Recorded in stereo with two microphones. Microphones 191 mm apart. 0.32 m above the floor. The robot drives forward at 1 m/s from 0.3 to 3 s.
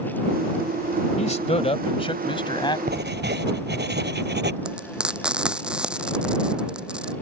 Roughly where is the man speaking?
Left.